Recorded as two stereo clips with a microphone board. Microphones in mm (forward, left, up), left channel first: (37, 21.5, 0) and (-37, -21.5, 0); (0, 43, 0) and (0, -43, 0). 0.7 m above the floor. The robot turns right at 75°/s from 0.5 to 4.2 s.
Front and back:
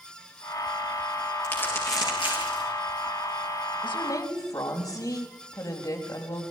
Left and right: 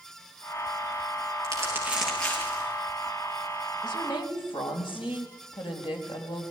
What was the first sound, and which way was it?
Crumpling, 50° right.